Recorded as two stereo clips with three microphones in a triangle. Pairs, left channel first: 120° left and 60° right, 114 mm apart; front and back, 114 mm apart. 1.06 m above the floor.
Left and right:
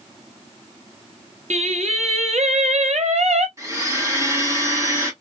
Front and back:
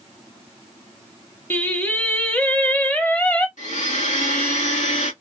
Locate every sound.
1.5 s singing: 75° right, 0.9 m
3.6 s a blender: 5° left, 2.5 m